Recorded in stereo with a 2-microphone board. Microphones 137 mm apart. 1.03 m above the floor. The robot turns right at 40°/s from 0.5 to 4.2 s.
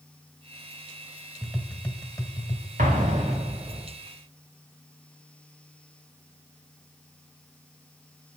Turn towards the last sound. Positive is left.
turn(degrees=-20)